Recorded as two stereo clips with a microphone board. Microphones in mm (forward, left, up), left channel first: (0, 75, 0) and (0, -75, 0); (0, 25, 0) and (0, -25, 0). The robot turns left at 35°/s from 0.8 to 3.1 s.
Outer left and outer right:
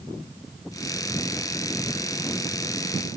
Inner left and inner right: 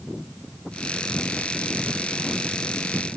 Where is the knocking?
I don't hear knocking.